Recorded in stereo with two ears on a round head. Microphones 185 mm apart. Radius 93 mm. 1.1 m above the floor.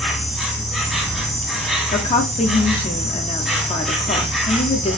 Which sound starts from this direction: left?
A woman speaking, at 1.9 s.